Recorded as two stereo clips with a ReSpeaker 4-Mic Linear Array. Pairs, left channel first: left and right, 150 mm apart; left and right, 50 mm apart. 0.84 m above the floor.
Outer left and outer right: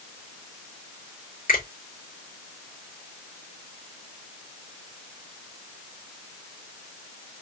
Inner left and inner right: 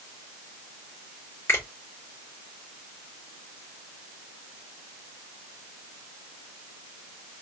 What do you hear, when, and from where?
1.5 s a finger snap: 65° left (ahead or behind), 3.5 m